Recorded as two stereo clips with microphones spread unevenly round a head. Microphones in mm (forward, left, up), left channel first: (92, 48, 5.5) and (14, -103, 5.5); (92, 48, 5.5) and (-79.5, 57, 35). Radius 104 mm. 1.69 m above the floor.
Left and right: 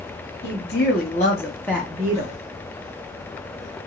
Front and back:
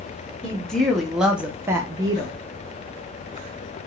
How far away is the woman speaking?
About 1.1 m.